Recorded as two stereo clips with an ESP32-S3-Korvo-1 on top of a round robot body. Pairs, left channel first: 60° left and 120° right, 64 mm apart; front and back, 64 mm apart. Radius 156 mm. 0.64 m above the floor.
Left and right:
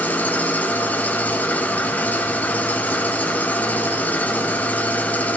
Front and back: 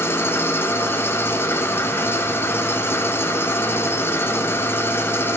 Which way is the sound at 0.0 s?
15° left.